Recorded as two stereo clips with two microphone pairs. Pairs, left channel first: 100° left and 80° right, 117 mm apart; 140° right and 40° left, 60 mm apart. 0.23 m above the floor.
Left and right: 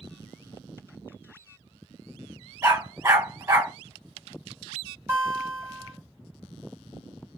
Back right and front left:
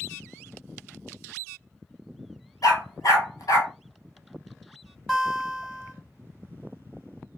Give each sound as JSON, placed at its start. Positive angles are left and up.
{"t": 2.6, "sound": "a dog barking", "azimuth_deg": -140, "distance_m": 1.3}
{"t": 5.1, "sound": "a guitar", "azimuth_deg": -55, "distance_m": 1.3}